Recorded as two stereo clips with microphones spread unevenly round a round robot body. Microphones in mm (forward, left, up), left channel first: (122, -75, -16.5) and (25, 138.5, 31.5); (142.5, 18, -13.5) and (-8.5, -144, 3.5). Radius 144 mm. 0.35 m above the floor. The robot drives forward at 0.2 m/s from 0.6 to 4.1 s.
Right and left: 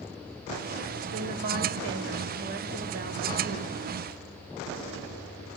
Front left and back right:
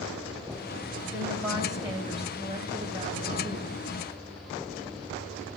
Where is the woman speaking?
145° left, 1.7 m; by 3.8 s 155° left, 2 m.